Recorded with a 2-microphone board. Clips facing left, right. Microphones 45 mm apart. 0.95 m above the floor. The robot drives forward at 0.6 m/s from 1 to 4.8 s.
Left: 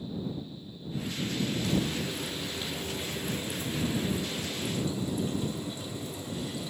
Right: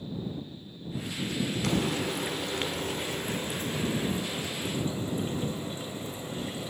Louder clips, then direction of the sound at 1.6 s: Right 2 dB; 75° right (ahead or behind).